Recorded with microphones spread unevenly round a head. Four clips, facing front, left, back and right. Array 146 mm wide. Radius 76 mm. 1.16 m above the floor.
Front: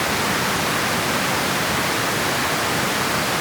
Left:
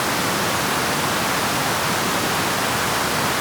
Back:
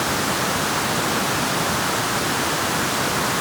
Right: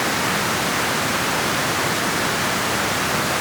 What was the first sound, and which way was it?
Only background noise.